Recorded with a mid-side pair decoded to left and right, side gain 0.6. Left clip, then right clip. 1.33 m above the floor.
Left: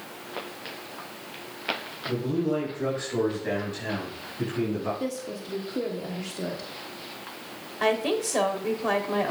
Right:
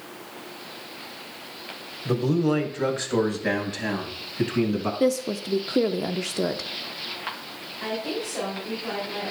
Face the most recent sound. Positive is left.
turn(degrees=55)